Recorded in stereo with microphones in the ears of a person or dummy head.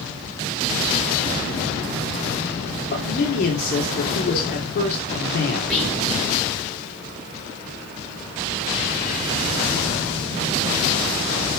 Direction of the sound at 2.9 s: 45° left (ahead or behind).